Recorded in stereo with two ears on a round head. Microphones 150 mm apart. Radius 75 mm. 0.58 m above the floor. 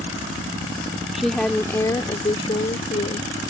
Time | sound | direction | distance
1.1 | a woman speaking | 5° right (ahead or behind) | ?